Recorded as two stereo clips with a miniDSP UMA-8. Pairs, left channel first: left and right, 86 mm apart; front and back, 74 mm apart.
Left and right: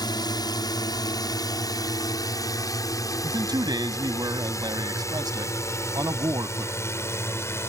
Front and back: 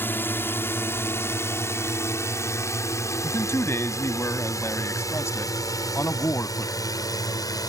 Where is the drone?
60° left; by 7.7 s 30° left.